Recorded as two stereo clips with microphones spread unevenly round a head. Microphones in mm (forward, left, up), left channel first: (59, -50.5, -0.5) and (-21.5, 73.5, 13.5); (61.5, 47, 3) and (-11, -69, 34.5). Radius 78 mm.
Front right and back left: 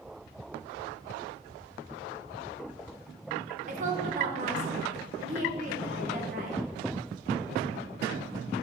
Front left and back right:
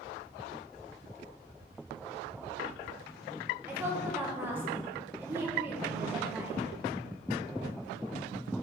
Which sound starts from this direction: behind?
A woman speaking, at 3.7 s.